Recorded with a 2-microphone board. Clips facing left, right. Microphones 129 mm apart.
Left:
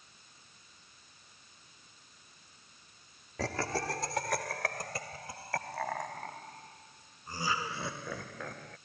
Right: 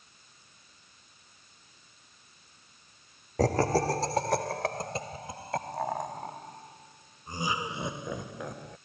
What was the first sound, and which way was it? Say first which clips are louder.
Laughter: right 9 dB; 40° right (ahead or behind).